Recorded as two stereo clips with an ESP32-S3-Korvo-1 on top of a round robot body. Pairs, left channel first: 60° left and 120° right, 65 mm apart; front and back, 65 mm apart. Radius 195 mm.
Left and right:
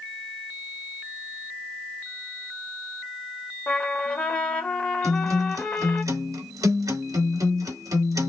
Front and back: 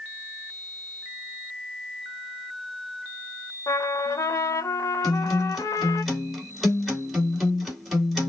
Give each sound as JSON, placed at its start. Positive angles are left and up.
{"t": 3.7, "sound": "a trumpet", "azimuth_deg": -10, "distance_m": 1.3}
{"t": 5.0, "sound": "a guitar", "azimuth_deg": -95, "distance_m": 3.5}